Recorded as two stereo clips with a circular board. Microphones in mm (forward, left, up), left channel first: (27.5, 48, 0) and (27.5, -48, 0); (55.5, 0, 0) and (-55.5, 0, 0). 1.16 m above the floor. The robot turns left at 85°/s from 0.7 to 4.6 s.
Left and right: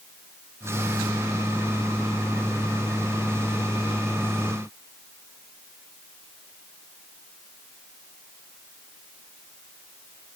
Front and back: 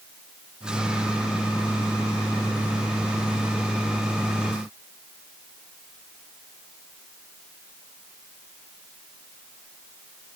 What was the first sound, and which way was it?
Only background noise.